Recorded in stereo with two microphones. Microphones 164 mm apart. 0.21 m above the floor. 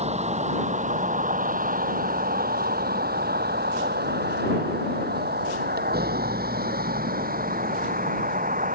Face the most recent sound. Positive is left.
turn(degrees=-60)  # may be behind; listen again after turning